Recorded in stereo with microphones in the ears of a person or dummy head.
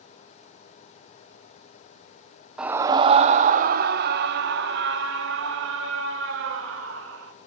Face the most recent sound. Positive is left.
turn(degrees=-85)